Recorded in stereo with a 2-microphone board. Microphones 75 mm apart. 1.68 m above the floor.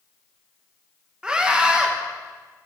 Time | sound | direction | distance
1.2 | a scream | 15° right (ahead or behind) | 2 m